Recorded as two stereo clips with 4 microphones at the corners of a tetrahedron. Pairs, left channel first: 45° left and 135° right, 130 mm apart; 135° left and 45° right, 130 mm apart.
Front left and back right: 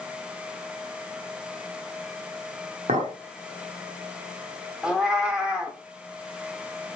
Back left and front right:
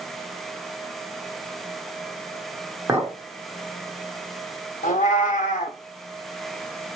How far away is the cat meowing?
About 0.7 m.